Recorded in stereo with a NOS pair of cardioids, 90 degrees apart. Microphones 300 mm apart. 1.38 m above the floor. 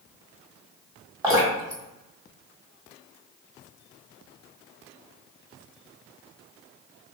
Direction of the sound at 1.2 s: 10° right.